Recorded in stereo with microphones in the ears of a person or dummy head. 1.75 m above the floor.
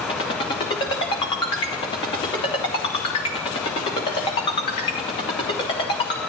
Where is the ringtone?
30° left (ahead or behind), 2.5 m.